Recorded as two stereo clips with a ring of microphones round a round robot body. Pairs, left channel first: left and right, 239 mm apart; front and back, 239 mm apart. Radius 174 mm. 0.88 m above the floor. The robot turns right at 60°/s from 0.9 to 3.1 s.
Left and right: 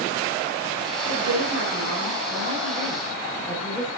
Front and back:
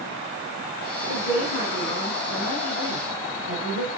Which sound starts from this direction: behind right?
A woman speaking, at 1.1 s.